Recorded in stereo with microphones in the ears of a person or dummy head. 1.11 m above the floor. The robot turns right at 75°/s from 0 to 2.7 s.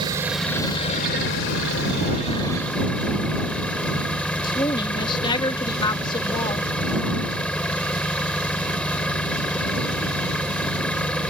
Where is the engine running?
25° right; by 11.3 s straight behind.